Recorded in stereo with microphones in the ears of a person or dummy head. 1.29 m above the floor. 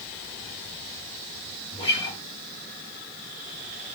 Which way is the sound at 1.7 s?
25° left (ahead or behind).